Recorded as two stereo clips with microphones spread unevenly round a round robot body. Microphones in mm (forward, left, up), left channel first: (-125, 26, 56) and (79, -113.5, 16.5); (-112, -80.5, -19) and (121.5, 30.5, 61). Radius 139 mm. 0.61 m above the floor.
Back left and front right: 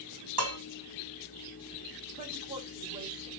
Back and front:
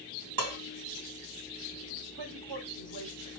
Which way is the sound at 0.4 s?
10° right.